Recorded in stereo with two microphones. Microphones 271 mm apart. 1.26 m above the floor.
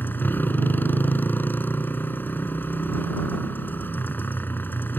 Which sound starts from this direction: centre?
A motorcycle, at 0.0 s.